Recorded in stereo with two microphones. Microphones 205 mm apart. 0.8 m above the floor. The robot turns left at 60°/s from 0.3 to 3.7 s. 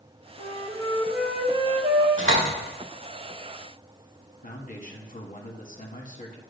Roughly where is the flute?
Ahead left.